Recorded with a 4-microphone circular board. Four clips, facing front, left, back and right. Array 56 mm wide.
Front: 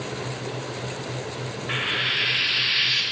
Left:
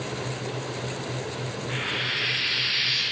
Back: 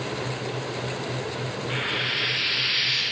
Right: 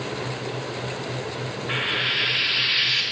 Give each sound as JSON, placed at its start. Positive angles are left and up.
{"t": 1.7, "sound": "frying", "azimuth_deg": -45, "distance_m": 1.7}